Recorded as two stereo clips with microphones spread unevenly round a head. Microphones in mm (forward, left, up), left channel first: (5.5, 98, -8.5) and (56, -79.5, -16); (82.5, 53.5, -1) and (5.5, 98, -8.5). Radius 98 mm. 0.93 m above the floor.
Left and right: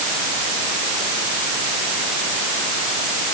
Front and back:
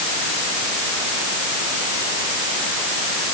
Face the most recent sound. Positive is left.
No sound to turn to.